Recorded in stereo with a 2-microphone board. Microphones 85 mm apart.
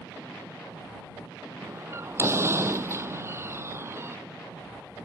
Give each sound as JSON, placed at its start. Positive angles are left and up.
{"t": 1.6, "sound": "a door slam", "side_deg": -30}